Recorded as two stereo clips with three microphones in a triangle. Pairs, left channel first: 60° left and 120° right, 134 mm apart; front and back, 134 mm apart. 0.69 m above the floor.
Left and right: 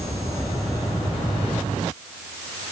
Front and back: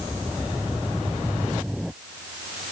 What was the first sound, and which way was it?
Only background noise.